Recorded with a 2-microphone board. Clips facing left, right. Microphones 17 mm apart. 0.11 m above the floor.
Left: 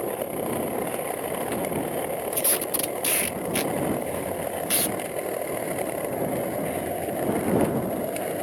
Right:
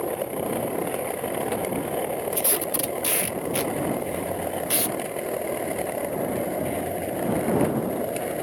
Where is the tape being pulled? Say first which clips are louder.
Right 1 dB; 5° left (ahead or behind).